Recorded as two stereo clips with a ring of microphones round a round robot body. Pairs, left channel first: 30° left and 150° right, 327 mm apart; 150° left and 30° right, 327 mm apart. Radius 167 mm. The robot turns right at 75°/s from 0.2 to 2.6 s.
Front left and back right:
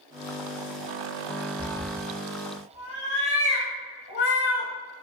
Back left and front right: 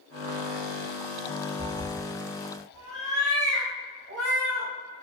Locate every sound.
1.6 s a cat meowing: 65° right, 0.9 m; by 4.7 s 10° left, 0.9 m